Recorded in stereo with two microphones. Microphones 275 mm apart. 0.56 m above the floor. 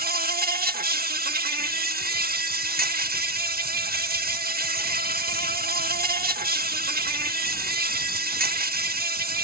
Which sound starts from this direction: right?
An insect, at 0.0 s.